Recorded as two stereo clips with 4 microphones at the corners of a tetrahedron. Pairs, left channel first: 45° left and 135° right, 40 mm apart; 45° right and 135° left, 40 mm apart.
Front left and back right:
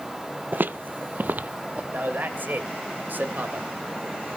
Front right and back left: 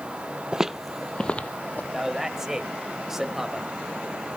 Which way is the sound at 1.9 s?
145° right.